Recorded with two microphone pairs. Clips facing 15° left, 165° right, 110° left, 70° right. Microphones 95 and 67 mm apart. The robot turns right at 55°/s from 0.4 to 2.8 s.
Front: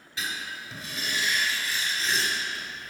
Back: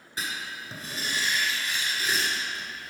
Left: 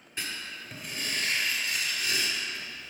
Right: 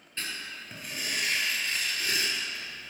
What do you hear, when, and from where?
0.2 s writing: straight behind, 1.9 m; by 2.9 s 45° right, 1.9 m